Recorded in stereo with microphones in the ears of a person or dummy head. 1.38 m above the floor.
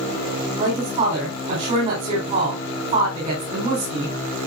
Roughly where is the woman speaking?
Right.